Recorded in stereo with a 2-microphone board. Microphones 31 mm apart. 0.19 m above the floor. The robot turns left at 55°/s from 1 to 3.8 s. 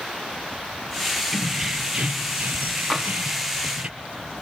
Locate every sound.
1.3 s keys jangling: 5° right, 3 m; by 3.9 s 140° right, 3 m
2.9 s tapping: 5° right (ahead or behind), 5 m; by 3.1 s 5° left (ahead or behind), 5 m